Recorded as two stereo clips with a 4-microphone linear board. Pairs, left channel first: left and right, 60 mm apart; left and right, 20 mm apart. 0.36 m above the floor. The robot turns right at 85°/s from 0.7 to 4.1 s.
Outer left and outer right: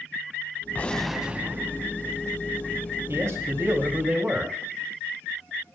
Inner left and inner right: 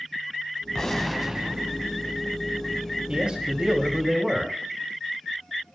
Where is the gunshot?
150° left, 1.0 m; by 1.9 s 110° right, 1.0 m.